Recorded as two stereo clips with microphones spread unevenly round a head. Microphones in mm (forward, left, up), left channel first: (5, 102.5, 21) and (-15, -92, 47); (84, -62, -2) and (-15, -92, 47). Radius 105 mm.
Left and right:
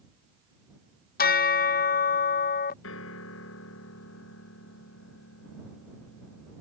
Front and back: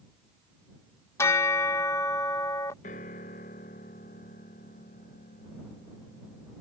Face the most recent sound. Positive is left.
turn(degrees=60)